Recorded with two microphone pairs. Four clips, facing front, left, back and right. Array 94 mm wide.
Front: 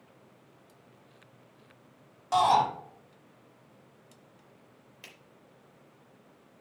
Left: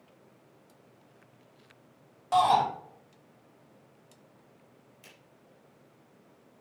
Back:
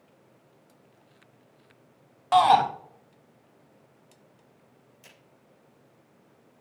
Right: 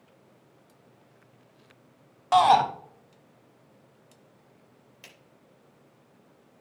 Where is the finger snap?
55° right, 5 m.